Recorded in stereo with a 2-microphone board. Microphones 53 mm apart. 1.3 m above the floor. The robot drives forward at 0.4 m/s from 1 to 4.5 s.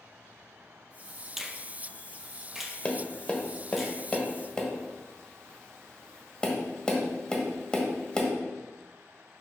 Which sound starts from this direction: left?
Tapping, at 2.9 s.